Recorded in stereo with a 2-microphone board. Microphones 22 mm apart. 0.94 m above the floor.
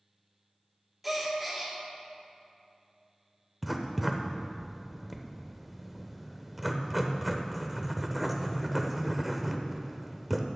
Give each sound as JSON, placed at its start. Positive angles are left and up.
{"t": 1.0, "sound": "a gasp", "side_deg": -5, "distance_m": 1.7}
{"t": 3.6, "sound": "writing", "side_deg": -5, "distance_m": 0.8}